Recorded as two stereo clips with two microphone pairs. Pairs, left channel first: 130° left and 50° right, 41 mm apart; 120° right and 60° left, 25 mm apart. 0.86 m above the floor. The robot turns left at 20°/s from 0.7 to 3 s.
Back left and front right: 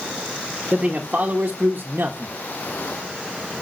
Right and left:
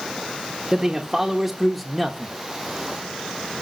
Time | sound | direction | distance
0.7 | a man speaking | 5° right | 0.9 m